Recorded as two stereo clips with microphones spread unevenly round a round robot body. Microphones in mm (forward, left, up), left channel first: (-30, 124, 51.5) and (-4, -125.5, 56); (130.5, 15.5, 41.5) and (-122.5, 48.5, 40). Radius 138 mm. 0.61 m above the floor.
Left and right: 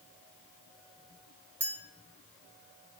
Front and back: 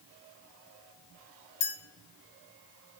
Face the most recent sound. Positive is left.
turn(degrees=0)